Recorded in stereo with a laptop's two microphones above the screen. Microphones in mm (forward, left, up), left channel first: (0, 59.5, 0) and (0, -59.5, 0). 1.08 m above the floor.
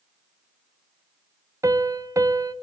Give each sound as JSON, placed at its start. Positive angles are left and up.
{"t": 1.6, "sound": "a piano", "side_deg": -25, "distance_m": 0.9}